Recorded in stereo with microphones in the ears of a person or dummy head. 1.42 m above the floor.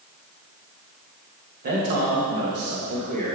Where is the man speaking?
40° right (ahead or behind), 1.5 m.